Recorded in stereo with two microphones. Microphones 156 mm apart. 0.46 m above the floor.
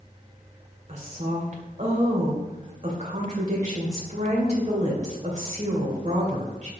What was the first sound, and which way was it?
A woman speaking, 50° right (ahead or behind).